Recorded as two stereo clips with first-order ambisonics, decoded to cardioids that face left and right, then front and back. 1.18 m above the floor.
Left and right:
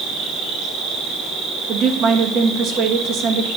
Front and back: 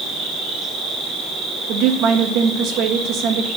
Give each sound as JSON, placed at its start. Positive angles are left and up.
{"t": 0.0, "sound": "an insect", "azimuth_deg": -120, "distance_m": 3.0}
{"t": 1.7, "sound": "a woman speaking", "azimuth_deg": -140, "distance_m": 1.3}